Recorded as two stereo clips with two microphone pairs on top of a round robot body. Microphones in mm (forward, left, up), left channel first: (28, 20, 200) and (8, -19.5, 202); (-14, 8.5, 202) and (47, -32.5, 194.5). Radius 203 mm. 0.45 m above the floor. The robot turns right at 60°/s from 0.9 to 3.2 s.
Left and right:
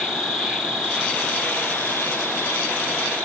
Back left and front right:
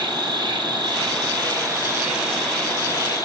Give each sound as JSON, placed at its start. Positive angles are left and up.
{"t": 0.0, "sound": "an insect", "azimuth_deg": -35, "distance_m": 3.0}